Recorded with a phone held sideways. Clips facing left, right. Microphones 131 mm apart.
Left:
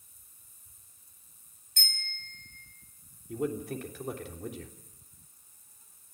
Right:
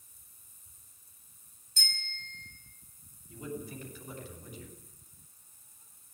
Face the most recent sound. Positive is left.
turn(degrees=80)